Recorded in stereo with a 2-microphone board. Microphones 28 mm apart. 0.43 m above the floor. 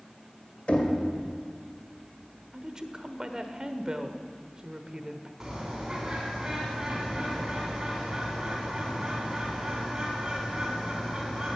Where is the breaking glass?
No breaking glass in this recording.